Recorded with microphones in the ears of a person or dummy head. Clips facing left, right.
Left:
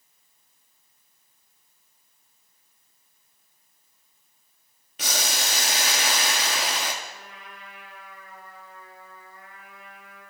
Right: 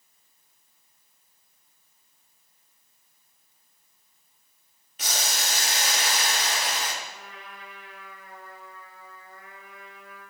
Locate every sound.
5.0 s boiling: 60° left (ahead or behind), 0.9 m
7.0 s a trumpet: 60° right (ahead or behind), 4.5 m